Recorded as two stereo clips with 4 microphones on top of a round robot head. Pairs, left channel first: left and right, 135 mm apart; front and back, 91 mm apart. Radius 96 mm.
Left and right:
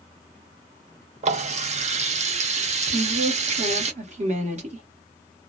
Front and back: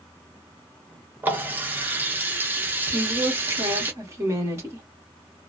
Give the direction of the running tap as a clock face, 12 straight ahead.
4 o'clock.